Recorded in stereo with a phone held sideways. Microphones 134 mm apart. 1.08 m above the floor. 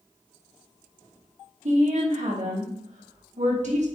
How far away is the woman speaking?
About 1.2 m.